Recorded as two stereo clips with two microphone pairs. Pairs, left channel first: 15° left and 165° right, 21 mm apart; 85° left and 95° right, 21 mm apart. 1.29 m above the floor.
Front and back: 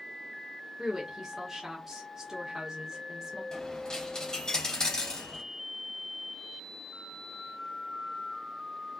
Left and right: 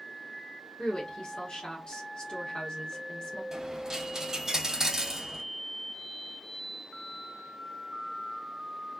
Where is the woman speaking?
130° left, 1.3 m.